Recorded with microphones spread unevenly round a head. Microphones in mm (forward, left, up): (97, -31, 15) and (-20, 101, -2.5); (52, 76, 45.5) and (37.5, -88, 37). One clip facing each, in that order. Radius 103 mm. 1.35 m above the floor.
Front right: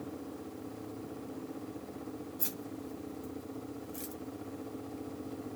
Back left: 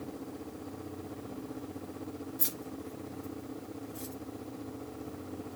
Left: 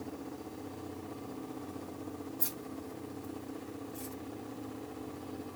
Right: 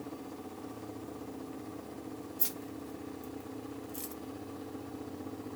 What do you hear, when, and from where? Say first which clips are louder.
2.4 s keys jangling: back left 1 dB, even; 165° right, 0.9 m; by 4.1 s 85° right, 0.8 m